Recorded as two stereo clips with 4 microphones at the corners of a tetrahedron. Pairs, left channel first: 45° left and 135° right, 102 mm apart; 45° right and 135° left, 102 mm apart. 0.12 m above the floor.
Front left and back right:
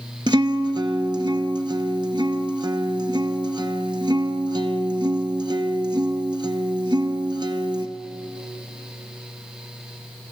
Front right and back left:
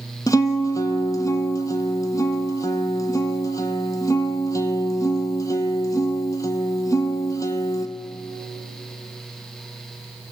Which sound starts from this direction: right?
A guitar, at 0.3 s.